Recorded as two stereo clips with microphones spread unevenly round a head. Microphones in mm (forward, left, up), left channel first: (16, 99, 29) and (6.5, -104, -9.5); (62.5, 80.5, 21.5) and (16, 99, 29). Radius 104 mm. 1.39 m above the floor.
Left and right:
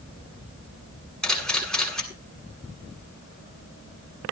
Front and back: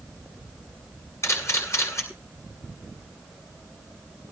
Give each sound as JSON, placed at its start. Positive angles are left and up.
{"t": 1.2, "sound": "a camera shutter", "azimuth_deg": 0, "distance_m": 8.5}